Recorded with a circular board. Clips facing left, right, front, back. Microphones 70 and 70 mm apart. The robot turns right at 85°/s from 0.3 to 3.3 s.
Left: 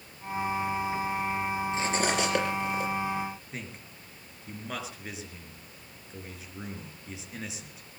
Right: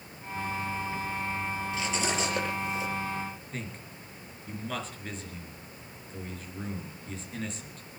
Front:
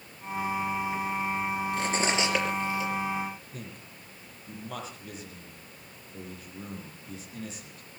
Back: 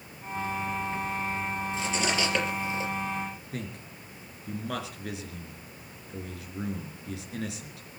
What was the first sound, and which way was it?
Cutlery clinking, 30° left.